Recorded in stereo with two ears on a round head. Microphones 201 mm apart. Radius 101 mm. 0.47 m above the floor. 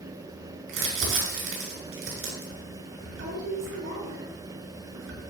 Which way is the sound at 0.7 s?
65° right (ahead or behind).